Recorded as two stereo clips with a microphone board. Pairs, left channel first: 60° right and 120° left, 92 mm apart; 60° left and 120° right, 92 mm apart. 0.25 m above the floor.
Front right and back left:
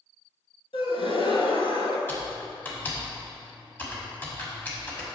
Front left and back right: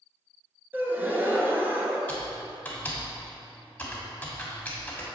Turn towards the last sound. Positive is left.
turn(degrees=-5)